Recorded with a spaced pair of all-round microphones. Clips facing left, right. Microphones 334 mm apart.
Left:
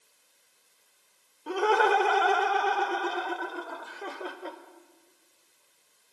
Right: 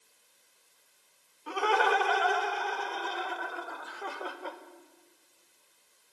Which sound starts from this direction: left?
Laughter, at 1.5 s.